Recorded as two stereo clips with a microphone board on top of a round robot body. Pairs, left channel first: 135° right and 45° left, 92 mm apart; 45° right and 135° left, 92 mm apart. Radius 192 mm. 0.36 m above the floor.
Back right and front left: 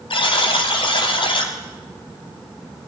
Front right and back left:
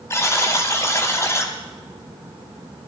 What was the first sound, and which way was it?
A buzzer, 105° right.